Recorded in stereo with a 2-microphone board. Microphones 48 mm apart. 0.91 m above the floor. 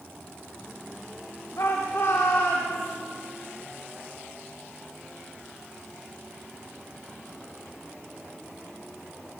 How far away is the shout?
About 3.5 m.